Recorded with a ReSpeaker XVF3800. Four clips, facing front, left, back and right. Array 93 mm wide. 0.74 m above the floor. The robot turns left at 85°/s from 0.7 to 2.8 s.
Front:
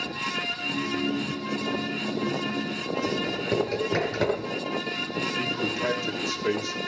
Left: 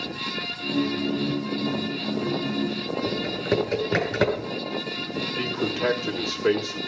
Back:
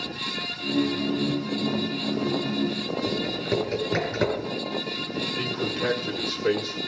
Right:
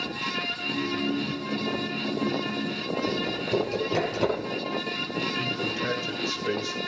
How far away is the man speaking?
About 1.4 m.